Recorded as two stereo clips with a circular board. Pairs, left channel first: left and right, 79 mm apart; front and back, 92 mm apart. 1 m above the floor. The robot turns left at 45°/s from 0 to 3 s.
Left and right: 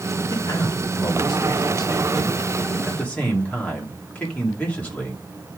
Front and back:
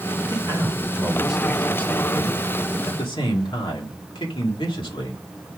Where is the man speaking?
140° left, 2 m; by 5.5 s 20° left, 2 m.